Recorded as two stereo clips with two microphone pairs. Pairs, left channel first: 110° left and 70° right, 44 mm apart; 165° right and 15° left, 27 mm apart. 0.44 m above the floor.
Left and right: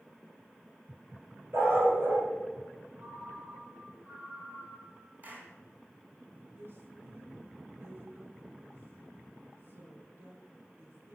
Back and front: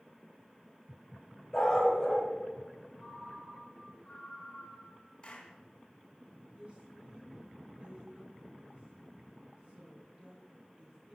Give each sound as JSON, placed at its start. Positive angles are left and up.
{"t": 1.5, "sound": "a dog barking", "azimuth_deg": -85, "distance_m": 5.0}
{"t": 3.0, "sound": "a ringtone", "azimuth_deg": -110, "distance_m": 5.0}
{"t": 5.2, "sound": "a clap", "azimuth_deg": -115, "distance_m": 3.0}
{"t": 6.5, "sound": "a woman speaking", "azimuth_deg": -35, "distance_m": 4.0}